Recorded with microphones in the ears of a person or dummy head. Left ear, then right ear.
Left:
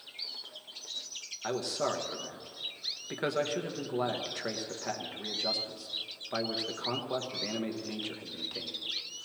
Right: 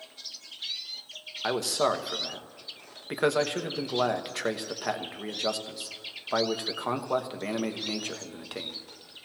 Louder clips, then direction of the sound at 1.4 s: Right 6 dB; 25° right (ahead or behind).